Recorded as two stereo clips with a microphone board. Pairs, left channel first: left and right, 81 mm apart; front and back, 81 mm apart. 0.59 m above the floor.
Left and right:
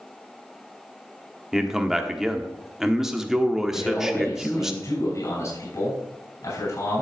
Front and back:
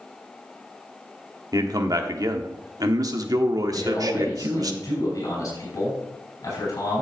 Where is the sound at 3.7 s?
50° left, 6 m.